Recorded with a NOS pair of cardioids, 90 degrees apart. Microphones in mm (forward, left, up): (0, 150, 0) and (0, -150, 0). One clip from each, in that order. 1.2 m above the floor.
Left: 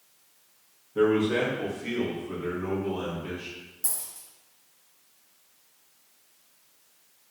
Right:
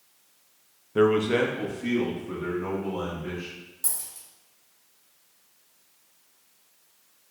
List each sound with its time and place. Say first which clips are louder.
0.9 s a man speaking: right 2 dB; 40° right, 0.6 m; by 3.5 s 25° right, 2.5 m
3.8 s a dropped coin: right 2 dB; 25° right, 1.8 m